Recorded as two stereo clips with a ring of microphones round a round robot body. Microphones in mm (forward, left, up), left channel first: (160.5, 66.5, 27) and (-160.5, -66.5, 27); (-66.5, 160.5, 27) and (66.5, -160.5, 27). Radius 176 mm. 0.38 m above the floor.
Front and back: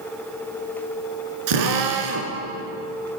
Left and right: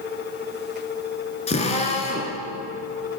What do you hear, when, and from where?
1.5 s a drill: 175° right, 2.5 m